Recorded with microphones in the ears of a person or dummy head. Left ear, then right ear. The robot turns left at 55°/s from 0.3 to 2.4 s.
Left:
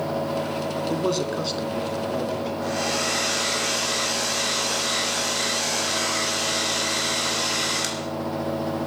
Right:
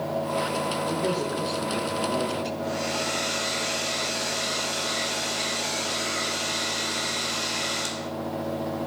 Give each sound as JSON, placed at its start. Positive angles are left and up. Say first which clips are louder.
{"t": 0.9, "sound": "a man speaking", "louder": "left 2 dB", "azimuth_deg": 65, "distance_m": 2.5}
{"t": 2.6, "sound": "a hair dryer", "louder": "left 5 dB", "side_deg": 85, "distance_m": 2.5}